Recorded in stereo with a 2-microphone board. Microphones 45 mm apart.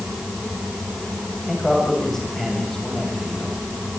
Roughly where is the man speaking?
Centre.